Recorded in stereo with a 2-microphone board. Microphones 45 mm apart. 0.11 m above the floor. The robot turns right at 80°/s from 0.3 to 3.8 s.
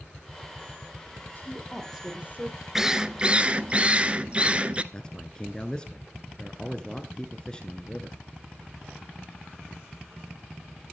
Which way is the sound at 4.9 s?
20° left (ahead or behind).